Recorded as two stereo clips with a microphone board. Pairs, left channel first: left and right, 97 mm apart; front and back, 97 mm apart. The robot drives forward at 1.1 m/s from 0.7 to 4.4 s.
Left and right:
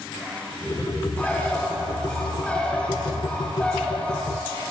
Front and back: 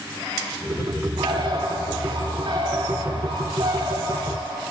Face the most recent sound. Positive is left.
turn(degrees=170)